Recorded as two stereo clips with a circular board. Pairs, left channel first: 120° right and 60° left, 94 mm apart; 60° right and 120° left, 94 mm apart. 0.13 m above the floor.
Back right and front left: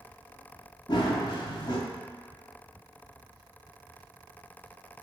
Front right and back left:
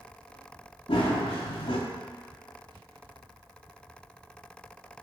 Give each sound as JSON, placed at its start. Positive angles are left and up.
{"t": 0.9, "sound": "running footsteps", "azimuth_deg": -85, "distance_m": 0.9}